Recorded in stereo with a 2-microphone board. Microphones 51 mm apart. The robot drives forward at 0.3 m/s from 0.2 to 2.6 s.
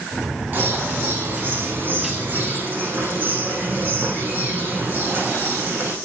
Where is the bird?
30° right (ahead or behind), 7 m.